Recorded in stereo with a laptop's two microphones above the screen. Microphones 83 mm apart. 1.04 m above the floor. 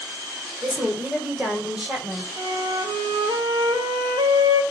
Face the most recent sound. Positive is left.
turn(degrees=-80)